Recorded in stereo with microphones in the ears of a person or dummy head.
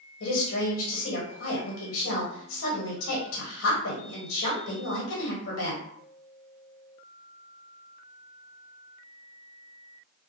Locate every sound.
0.2 s a woman speaking: 70° left (ahead or behind), 1.0 m